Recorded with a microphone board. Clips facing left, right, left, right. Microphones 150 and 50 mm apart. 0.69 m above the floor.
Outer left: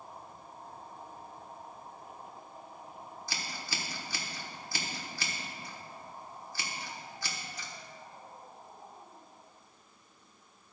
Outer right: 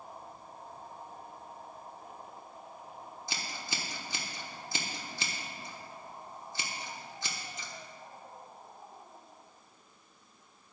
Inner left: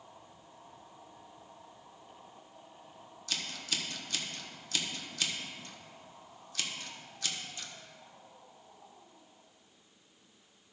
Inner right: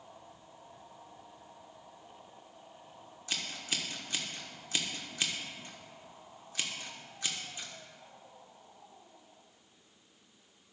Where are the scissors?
20° right (ahead or behind), 1.1 m.